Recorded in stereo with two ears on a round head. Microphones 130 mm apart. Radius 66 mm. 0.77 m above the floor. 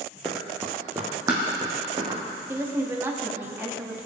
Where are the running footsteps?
Centre (ahead or behind), 1.4 m; by 2.4 s 30° right (ahead or behind), 3.5 m.